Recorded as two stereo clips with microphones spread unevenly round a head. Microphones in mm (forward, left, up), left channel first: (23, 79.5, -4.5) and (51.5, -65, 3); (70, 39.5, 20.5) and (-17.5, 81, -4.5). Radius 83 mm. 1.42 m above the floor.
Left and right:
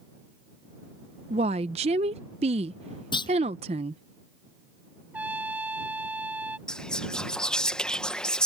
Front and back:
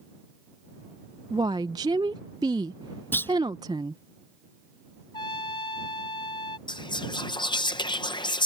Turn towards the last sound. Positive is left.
turn(degrees=15)